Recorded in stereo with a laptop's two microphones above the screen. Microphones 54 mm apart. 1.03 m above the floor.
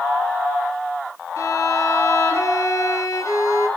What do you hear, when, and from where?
1.4 s a violin: 85° left, 5 m